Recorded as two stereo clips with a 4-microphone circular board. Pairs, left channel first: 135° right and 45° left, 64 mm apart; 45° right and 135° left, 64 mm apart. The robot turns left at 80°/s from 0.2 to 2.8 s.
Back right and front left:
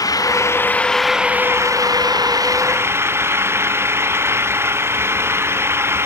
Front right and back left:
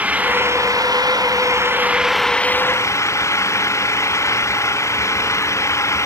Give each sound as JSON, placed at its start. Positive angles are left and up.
{"t": 0.0, "sound": "an engine running", "azimuth_deg": -155}